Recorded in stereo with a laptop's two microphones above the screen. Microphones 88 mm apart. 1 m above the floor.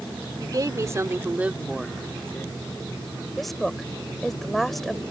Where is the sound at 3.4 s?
Centre (ahead or behind).